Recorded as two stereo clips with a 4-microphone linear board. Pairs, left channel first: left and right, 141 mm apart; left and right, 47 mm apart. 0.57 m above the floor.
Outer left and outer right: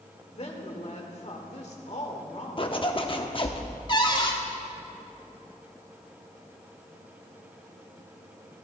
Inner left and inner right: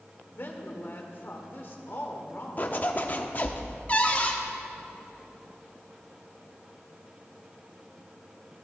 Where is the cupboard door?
35° left (ahead or behind), 1.2 m.